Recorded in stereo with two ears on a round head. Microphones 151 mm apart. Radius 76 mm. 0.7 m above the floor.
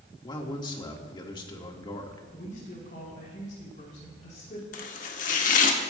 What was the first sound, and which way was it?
A man speaking, 30° left (ahead or behind).